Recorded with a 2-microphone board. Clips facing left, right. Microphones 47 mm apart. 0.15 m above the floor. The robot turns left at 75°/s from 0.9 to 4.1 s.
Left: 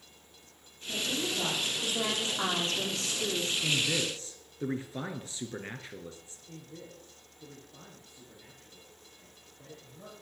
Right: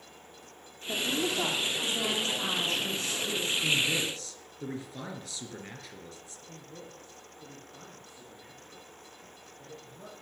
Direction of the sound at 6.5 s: 15° right (ahead or behind).